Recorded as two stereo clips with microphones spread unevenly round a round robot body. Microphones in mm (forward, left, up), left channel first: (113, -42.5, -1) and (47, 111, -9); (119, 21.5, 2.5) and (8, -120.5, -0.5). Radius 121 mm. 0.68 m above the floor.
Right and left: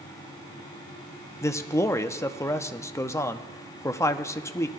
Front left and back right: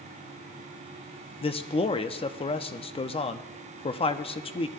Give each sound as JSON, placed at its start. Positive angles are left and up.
{"t": 1.4, "sound": "a man speaking", "azimuth_deg": 5, "distance_m": 0.6}